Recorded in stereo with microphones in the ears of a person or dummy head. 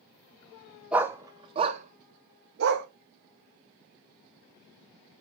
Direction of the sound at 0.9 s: 5° right (ahead or behind).